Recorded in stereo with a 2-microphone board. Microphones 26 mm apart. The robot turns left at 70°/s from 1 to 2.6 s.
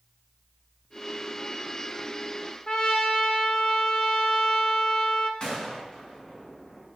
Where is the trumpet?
30° left (ahead or behind), 2 m.